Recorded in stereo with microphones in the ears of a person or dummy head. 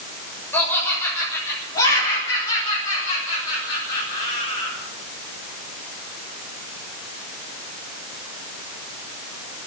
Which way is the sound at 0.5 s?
15° left (ahead or behind).